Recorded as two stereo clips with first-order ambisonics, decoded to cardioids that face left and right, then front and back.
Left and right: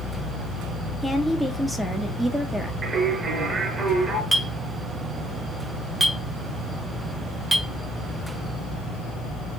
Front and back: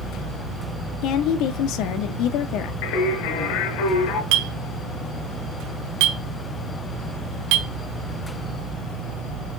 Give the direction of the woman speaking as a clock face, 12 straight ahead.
12 o'clock.